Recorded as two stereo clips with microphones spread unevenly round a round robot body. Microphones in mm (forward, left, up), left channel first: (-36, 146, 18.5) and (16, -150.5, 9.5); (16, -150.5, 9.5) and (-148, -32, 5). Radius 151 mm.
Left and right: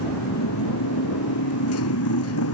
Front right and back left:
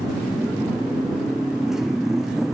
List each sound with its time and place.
0.0 s a motorcycle: 55° left